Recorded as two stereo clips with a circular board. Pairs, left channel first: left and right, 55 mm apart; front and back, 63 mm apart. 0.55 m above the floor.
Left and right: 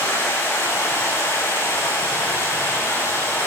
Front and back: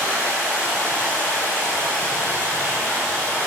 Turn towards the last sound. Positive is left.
turn(degrees=65)